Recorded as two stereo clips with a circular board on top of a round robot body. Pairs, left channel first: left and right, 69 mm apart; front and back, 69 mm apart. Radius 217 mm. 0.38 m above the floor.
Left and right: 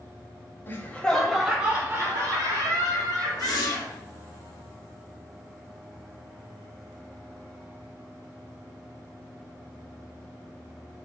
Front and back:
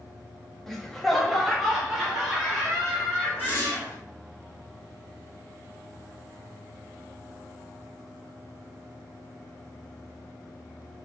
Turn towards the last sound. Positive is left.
turn(degrees=65)